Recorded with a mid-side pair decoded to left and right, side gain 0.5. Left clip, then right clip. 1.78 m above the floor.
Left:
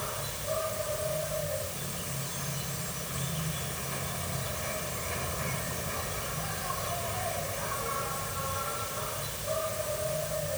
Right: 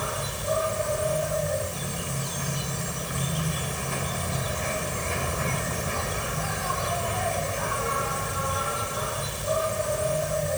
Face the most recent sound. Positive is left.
turn(degrees=-45)